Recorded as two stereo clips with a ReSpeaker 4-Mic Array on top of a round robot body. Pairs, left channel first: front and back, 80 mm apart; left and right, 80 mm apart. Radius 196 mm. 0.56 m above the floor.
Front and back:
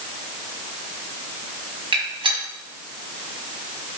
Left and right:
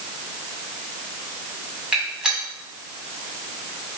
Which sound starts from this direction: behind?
A gunshot, at 1.9 s.